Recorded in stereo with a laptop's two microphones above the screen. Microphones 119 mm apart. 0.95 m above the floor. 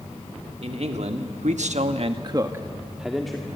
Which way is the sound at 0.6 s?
60° right (ahead or behind).